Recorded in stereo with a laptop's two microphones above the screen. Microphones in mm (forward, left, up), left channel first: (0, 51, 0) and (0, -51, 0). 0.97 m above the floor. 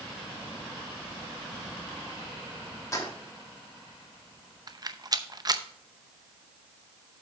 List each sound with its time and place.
2.9 s keys jangling: 35° left (ahead or behind), 1.1 m
4.7 s a rattle: 40° right (ahead or behind), 0.6 m